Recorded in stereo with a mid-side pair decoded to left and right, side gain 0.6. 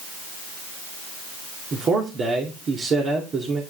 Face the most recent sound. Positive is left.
turn(degrees=-40)